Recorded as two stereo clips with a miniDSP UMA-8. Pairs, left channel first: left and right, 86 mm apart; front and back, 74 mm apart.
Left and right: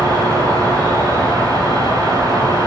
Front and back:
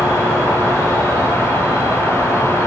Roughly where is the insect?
Behind left.